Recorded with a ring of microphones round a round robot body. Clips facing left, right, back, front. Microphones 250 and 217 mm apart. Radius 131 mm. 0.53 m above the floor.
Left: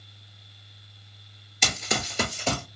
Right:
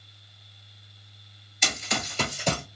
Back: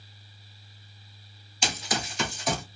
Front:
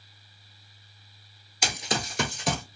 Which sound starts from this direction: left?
Running footsteps, at 1.6 s.